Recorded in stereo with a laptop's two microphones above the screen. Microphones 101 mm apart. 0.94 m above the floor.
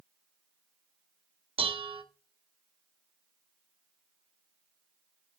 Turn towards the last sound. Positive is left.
turn(degrees=-65)  # may be behind; listen again after turning